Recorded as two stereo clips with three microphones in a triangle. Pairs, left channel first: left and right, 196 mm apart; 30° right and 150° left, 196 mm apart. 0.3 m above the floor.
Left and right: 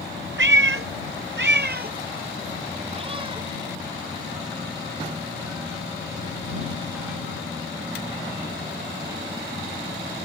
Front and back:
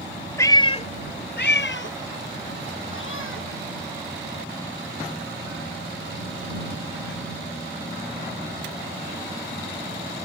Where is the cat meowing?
105° right; by 7.2 s 5° right.